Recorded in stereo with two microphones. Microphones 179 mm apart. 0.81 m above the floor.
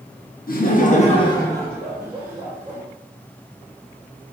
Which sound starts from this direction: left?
Laughter, at 0.5 s.